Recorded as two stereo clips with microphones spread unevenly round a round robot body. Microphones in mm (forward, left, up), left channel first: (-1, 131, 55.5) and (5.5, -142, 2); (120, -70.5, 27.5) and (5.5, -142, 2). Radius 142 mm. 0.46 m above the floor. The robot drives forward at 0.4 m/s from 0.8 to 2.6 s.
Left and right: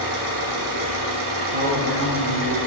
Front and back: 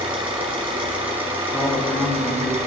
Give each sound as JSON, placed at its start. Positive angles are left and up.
{"t": 0.0, "sound": "an engine running", "azimuth_deg": -90, "distance_m": 3.5}
{"t": 1.5, "sound": "a woman speaking", "azimuth_deg": -40, "distance_m": 5.0}